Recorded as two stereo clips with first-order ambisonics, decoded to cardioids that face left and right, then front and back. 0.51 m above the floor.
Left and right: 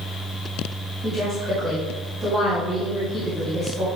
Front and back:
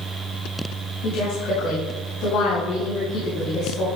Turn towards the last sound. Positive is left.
turn(degrees=-20)